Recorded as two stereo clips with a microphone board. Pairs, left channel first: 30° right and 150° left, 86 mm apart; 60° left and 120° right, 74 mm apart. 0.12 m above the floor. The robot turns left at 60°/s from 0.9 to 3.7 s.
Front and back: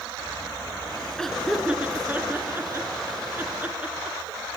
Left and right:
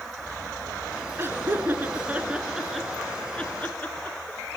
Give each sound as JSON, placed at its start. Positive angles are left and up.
{"t": 1.2, "sound": "laughter", "azimuth_deg": -110, "distance_m": 1.2}